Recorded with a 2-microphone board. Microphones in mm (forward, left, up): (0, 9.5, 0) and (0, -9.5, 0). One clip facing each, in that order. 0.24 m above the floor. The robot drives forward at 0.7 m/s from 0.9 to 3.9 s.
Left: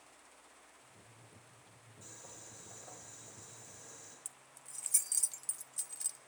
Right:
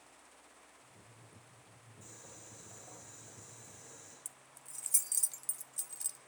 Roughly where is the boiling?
Centre.